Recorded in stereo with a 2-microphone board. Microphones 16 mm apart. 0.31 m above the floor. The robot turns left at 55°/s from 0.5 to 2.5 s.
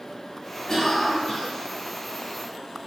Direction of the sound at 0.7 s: 25° left (ahead or behind).